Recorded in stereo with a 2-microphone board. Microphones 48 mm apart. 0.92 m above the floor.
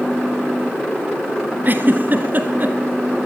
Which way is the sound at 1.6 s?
40° right (ahead or behind).